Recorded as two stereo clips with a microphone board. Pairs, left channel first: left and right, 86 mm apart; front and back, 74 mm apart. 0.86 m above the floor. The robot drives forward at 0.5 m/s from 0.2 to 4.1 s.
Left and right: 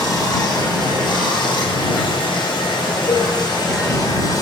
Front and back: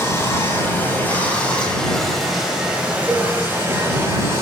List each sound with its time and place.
0.0 s running water: 50° left, 1.6 m; by 4.4 s 130° left, 1.6 m
3.1 s a cowbell: 100° left, 2.5 m; by 3.3 s 105° left, 2.5 m